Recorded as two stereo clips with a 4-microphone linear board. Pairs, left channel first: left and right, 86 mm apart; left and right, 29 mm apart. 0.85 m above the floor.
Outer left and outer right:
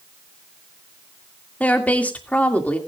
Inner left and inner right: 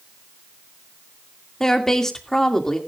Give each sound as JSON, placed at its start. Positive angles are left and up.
{"t": 1.6, "sound": "a woman speaking", "side_deg": 15, "distance_m": 2.0}